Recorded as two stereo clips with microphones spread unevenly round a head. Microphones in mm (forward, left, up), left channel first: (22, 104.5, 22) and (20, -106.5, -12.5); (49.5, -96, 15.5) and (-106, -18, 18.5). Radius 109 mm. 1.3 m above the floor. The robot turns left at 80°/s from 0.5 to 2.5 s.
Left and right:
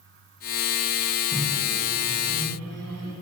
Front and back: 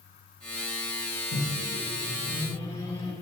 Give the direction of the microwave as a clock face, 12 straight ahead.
12 o'clock.